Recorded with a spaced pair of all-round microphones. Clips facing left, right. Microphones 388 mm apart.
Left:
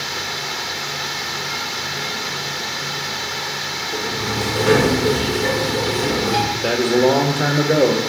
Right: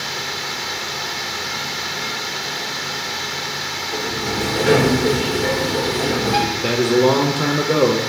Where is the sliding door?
10° left (ahead or behind), 1.6 m.